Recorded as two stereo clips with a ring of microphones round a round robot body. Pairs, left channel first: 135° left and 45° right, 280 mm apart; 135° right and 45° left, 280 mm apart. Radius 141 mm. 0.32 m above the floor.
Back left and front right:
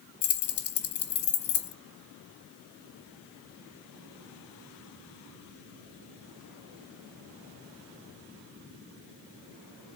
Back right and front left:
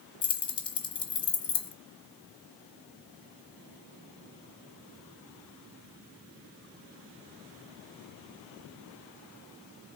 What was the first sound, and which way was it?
Keys jangling, 155° left.